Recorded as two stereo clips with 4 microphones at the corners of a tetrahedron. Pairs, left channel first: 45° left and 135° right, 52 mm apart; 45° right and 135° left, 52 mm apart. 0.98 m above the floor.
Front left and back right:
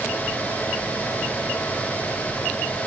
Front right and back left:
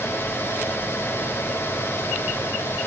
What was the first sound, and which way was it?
Only background noise.